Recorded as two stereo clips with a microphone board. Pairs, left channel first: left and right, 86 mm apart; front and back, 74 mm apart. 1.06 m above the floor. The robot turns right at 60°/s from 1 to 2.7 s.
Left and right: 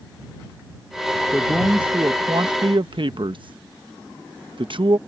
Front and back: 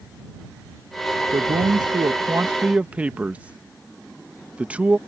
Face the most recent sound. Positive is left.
turn(degrees=-110)